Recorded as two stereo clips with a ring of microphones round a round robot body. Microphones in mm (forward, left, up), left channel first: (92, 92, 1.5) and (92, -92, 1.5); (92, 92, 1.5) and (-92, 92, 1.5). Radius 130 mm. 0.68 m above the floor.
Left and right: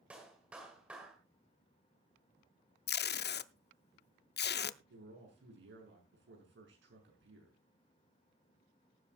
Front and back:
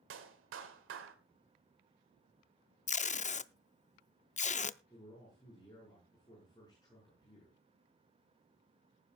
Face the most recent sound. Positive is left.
turn(degrees=-75)